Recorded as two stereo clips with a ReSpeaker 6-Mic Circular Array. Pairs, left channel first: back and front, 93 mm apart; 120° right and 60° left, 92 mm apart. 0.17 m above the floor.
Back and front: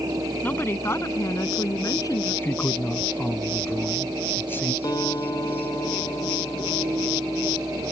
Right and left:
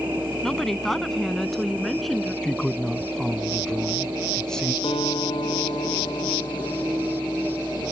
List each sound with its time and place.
0.4 s a woman speaking: 160° left; by 2.3 s 150° left
2.4 s a man speaking: 170° left
4.8 s a guitar: 135° right